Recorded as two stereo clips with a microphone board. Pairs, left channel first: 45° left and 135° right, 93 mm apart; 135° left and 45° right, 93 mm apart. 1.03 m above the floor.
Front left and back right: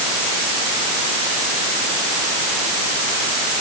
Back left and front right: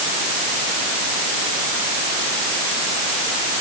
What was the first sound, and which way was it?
Only background noise.